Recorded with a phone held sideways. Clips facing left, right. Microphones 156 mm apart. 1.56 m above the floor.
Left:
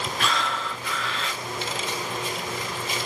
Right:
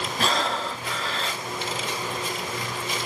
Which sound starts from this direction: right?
Breathing, at 0.2 s.